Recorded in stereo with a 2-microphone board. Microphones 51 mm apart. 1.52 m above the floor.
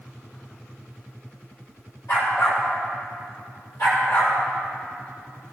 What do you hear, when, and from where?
2.1 s a dog barking: 80° left, 4 m; by 4.3 s 70° left (ahead or behind), 4.5 m